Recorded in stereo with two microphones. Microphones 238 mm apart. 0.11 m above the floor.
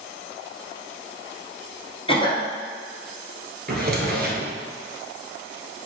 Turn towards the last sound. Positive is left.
turn(degrees=-45)  # may be behind; listen again after turning